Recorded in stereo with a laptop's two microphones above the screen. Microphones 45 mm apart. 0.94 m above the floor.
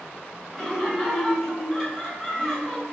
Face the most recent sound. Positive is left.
turn(degrees=10)  # may be behind; listen again after turning